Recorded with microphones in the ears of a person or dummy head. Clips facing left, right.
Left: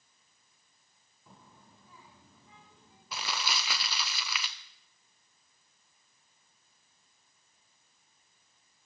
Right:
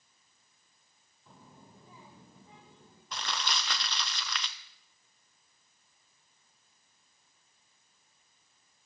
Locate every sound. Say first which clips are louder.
1.3 s a child speaking: right 3 dB; 5° left (ahead or behind), 0.6 m; by 3.0 s 30° right (ahead or behind), 2.5 m
3.1 s crumpling: even; 10° left (ahead or behind), 0.6 m